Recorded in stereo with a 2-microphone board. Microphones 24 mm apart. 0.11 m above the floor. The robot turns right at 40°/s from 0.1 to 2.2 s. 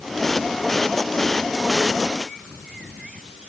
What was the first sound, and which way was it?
Only background noise.